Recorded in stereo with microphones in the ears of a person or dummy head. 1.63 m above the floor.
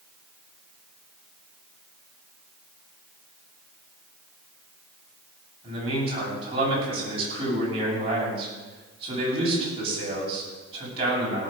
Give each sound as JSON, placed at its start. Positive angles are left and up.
{"t": 5.6, "sound": "a man speaking", "side_deg": -35, "distance_m": 9.0}